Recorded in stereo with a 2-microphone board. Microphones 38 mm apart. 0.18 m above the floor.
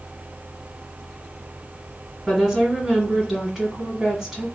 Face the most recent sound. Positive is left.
turn(degrees=-10)  # may be behind; listen again after turning